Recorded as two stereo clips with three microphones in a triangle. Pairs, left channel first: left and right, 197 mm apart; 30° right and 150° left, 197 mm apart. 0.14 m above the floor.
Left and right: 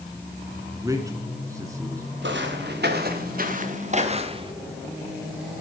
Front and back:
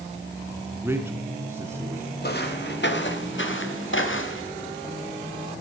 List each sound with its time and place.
0.8 s a man speaking: 145° right, 1.7 m
2.2 s footsteps: 65° right, 3.5 m; by 4.5 s 25° right, 3.5 m